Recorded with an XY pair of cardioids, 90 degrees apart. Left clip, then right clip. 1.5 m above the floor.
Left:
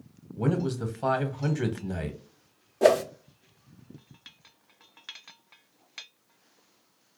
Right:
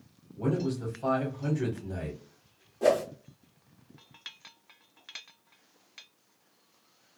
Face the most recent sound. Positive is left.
turn(degrees=65)